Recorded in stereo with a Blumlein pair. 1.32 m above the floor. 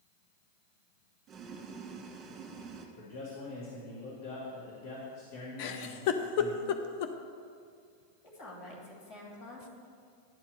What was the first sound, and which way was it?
Boiling, 25° right.